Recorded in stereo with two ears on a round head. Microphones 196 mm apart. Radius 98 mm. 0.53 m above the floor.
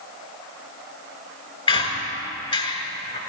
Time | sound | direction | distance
1.7 | a squeak | 25° left (ahead or behind) | 1.5 m